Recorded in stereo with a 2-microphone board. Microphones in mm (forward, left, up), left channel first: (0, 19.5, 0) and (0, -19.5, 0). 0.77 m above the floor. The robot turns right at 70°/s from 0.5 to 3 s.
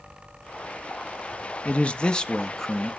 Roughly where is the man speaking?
Left.